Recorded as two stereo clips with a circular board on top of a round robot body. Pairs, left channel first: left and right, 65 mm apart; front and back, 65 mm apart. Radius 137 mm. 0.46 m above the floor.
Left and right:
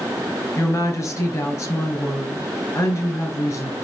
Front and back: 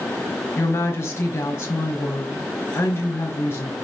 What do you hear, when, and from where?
0.6 s a woman speaking: 50° left, 4.5 m